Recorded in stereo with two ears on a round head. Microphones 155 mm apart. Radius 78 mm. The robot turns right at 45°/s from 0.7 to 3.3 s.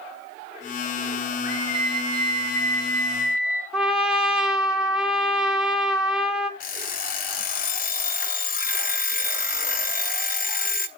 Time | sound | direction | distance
1.4 | a scream | 40° left | 6.5 m
3.7 | a trumpet | 5° right (ahead or behind) | 1.7 m
6.6 | an alarm clock | 50° left (ahead or behind) | 0.6 m